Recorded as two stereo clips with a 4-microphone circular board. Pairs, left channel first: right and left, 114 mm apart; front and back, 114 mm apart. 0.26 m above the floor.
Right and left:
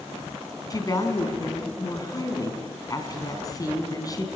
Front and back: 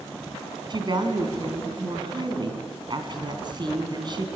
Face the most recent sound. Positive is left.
turn(degrees=-140)